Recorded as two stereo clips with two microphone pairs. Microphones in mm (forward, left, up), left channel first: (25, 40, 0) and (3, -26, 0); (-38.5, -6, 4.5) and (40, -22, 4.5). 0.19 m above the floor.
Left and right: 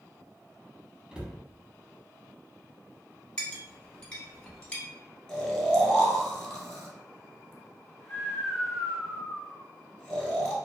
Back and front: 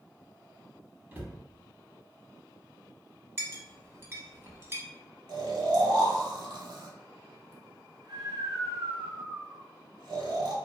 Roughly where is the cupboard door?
Ahead right.